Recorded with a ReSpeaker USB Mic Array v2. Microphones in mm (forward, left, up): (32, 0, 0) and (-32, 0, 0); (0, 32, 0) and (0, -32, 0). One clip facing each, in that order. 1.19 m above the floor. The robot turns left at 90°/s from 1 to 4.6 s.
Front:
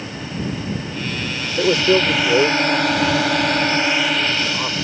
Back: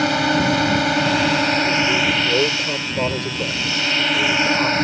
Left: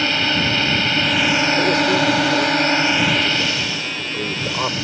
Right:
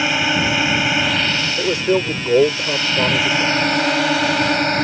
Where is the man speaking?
5° right; by 4.8 s 85° left.